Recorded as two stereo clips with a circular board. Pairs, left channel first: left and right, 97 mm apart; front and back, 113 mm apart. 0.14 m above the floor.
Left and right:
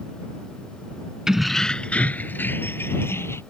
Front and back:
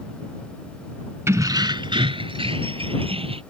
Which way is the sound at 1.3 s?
165° right.